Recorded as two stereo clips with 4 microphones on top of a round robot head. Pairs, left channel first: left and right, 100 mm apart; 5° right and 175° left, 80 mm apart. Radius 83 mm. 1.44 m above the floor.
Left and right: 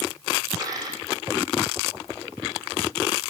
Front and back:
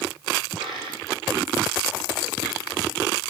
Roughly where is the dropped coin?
Behind right.